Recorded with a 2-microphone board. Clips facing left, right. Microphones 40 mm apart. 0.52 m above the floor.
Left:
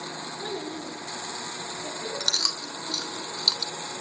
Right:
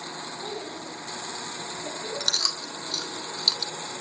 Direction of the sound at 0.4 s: 80° left.